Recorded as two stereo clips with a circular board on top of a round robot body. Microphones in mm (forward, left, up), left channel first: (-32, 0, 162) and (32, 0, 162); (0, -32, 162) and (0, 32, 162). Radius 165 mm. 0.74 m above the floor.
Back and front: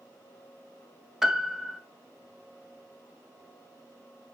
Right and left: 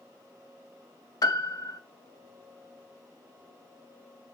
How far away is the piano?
About 0.9 m.